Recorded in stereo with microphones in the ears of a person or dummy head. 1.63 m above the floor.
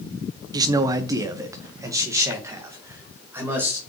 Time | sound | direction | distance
0.5 | a man speaking | 20° right (ahead or behind) | 0.6 m